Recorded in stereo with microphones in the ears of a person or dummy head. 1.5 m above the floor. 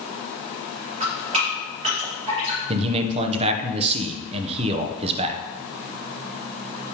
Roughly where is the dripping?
Right.